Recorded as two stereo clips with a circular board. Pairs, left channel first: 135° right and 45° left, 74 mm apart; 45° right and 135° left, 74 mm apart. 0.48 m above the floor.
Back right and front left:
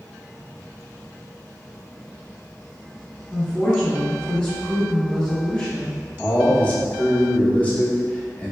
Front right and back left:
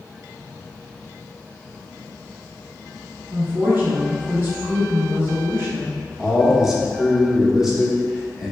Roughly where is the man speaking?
Behind right.